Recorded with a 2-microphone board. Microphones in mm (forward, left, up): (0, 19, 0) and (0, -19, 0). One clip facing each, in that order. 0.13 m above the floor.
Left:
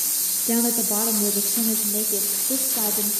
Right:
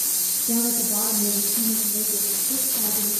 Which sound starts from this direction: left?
A woman speaking, at 0.5 s.